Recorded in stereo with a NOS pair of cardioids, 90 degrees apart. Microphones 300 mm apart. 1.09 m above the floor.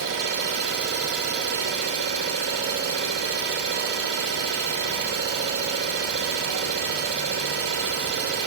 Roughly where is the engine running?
Ahead right.